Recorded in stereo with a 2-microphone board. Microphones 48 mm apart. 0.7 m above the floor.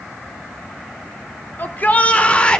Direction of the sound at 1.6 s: 40° left (ahead or behind).